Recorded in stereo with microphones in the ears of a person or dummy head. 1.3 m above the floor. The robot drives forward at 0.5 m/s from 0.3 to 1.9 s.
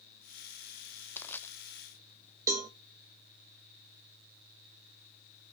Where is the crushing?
10° left (ahead or behind), 0.7 m; by 1.5 s 15° left (ahead or behind), 0.6 m.